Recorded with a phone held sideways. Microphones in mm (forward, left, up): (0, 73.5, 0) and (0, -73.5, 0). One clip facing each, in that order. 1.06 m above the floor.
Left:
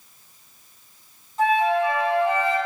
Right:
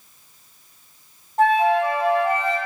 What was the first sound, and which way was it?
A flute, 65° right (ahead or behind).